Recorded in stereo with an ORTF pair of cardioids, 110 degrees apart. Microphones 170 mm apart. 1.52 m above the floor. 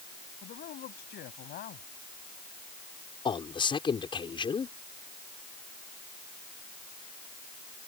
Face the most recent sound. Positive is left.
turn(degrees=30)